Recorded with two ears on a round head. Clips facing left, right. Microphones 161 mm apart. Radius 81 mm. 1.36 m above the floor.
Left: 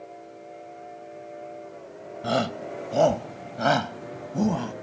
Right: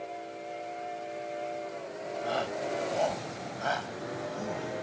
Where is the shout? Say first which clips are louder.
Left 6 dB; 60° left (ahead or behind); by 4.7 s 75° left (ahead or behind).